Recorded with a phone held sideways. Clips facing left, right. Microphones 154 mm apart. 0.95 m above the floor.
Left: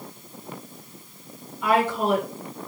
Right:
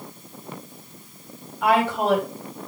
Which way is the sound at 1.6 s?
70° right (ahead or behind).